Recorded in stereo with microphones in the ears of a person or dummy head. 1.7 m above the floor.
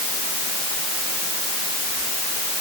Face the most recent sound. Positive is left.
No sound to turn to.